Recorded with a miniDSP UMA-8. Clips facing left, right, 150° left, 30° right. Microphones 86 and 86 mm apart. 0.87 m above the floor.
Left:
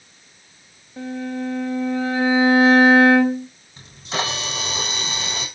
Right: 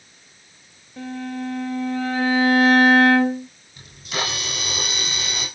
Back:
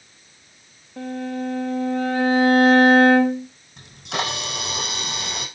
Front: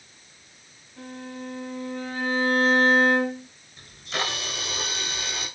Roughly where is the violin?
Behind.